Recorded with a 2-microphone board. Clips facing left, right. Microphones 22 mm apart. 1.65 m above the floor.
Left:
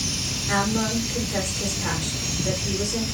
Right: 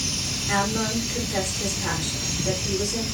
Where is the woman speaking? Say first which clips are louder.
Left 1 dB; 15° left (ahead or behind), 2.5 m.